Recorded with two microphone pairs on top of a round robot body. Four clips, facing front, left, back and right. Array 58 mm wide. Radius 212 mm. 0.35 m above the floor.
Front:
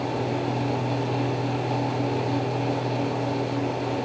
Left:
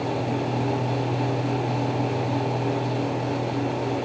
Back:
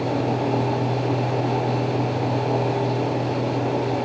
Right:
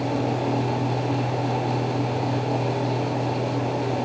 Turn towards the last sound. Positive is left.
No sound to turn to.